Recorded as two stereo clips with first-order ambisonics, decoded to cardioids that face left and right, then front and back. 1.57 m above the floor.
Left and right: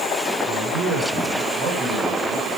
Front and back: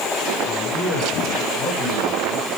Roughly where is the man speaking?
Ahead right.